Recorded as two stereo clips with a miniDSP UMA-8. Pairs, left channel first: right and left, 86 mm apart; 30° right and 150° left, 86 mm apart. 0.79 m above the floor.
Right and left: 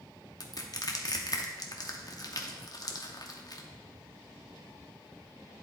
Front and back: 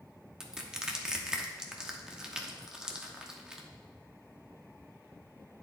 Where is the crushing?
130° right, 0.8 m.